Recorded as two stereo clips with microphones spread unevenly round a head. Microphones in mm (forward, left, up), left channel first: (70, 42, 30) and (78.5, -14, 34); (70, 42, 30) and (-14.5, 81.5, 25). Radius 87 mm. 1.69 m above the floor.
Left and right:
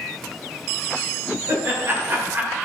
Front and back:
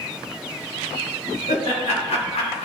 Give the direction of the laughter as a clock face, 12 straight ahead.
1 o'clock.